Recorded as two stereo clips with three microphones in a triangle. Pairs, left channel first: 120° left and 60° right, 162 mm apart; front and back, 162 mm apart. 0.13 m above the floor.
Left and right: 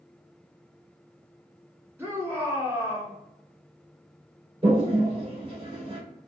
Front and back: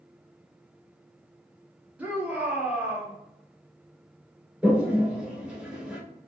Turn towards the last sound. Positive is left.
turn(degrees=-100)